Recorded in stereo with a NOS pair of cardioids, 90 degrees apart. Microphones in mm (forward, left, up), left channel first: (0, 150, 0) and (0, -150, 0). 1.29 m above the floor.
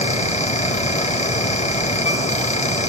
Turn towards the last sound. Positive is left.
turn(degrees=25)